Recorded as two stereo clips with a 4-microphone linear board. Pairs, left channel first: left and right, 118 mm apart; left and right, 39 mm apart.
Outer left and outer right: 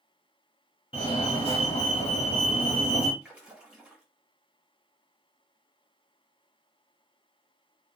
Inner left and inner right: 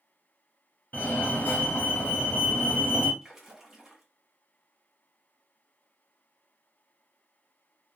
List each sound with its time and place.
0.9 s a fire alarm: 50° left (ahead or behind), 0.9 m
3.2 s a splash: 10° right (ahead or behind), 1.0 m